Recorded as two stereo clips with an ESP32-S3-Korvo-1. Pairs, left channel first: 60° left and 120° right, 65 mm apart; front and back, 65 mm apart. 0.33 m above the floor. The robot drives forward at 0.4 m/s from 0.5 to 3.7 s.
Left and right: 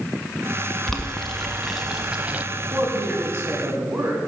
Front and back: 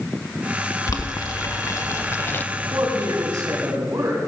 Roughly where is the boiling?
Ahead right.